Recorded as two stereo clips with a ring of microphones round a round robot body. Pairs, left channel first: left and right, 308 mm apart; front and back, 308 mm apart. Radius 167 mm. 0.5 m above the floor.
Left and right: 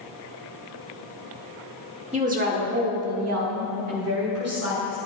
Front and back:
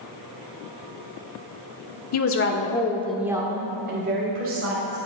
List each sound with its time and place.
2.1 s a woman speaking: 20° right, 1.3 m; by 5.0 s 135° right, 2.5 m